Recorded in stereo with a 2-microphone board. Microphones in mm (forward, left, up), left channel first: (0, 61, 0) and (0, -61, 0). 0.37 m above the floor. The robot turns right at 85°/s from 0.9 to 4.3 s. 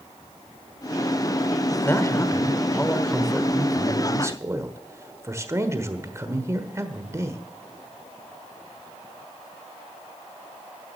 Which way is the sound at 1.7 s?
15° left (ahead or behind).